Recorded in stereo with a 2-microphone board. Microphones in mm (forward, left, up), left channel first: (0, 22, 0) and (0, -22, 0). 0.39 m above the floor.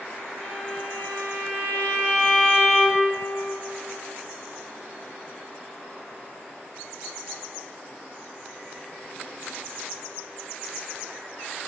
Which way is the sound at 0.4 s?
65° left (ahead or behind).